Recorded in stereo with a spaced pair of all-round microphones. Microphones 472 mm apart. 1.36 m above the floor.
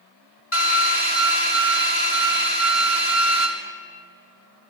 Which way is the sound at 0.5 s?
85° left.